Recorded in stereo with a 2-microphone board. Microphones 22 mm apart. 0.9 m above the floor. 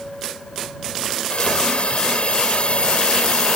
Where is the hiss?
55° left (ahead or behind).